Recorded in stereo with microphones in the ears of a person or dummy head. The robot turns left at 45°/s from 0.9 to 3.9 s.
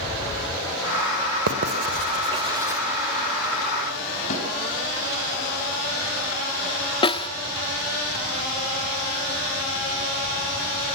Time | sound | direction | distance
1.5 | writing | 70° right (ahead or behind) | 2 m
4.3 | a snare drum | 45° left (ahead or behind) | 8 m
7.0 | a snare drum | 25° left (ahead or behind) | 1.1 m